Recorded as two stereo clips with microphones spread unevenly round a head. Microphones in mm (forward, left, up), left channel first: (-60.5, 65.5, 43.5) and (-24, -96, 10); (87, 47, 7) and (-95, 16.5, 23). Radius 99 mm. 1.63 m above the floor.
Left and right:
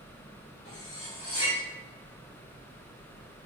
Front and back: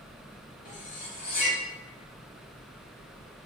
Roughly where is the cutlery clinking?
Ahead left.